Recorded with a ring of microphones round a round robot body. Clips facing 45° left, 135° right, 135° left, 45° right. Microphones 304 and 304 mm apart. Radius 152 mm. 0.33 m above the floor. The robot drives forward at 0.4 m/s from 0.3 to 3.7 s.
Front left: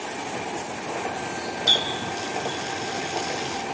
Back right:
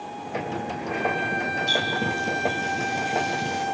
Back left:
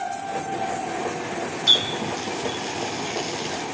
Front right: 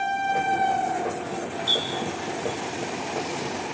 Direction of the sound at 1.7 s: 95° left.